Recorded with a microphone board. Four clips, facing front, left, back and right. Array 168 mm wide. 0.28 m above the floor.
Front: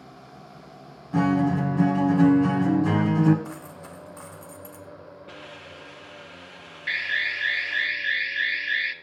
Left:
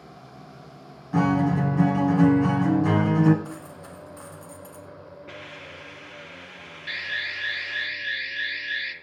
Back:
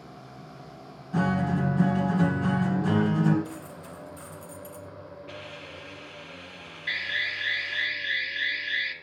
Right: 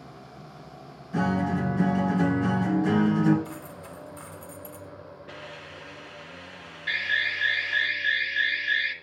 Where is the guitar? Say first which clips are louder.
Left 4 dB, front 5 dB; 75° left, 2.5 m.